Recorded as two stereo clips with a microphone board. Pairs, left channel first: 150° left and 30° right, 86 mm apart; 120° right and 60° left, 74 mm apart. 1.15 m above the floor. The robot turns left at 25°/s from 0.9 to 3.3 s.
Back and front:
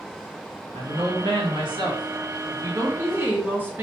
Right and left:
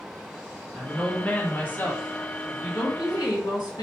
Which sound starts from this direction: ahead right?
A woman speaking, at 0.7 s.